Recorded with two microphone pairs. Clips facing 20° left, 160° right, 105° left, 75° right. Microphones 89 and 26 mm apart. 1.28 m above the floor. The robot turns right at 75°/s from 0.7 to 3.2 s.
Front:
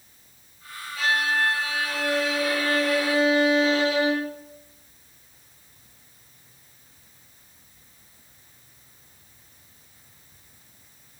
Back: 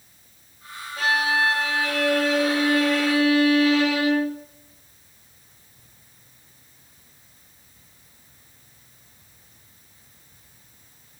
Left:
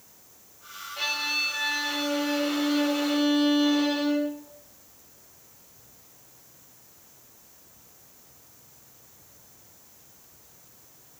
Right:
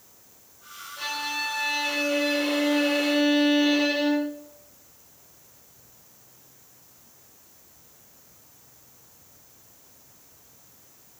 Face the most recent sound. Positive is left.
turn(degrees=-45)